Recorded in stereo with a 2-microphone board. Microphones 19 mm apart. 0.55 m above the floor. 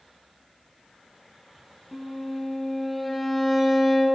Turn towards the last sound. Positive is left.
turn(degrees=5)  # may be behind; listen again after turning